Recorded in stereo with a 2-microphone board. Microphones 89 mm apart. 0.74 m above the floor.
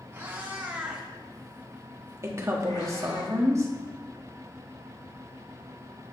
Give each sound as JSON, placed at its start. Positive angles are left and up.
{"t": 0.1, "sound": "a cat meowing", "side_deg": -30, "distance_m": 2.0}
{"t": 2.2, "sound": "a woman speaking", "side_deg": -35, "distance_m": 1.1}